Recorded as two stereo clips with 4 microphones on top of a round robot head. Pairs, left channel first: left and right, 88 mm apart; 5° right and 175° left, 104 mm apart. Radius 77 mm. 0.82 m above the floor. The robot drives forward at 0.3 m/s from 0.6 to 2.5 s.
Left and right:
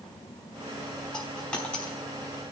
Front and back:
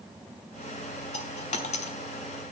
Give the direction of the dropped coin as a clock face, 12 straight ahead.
12 o'clock.